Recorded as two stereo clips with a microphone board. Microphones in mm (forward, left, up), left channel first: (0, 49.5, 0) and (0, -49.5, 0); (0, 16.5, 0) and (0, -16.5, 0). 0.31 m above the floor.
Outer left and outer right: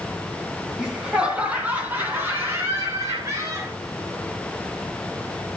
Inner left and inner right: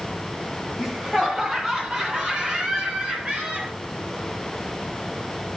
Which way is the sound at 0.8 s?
5° right (ahead or behind).